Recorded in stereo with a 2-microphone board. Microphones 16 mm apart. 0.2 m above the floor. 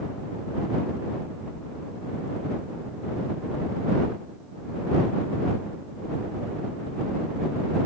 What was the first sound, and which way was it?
Only background noise.